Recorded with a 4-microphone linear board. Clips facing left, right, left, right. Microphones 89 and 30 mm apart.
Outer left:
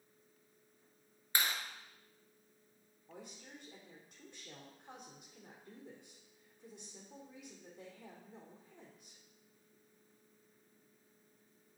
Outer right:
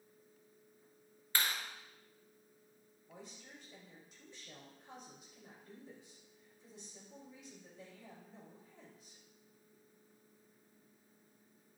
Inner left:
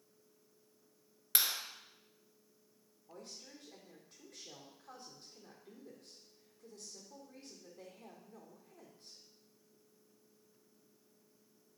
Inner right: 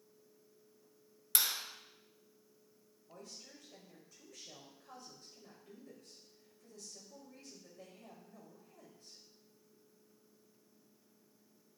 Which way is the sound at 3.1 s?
55° left (ahead or behind).